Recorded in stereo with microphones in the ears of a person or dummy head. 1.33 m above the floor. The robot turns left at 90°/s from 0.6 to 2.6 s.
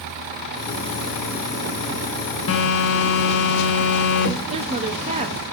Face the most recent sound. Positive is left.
turn(degrees=-30)  # may be behind; listen again after turning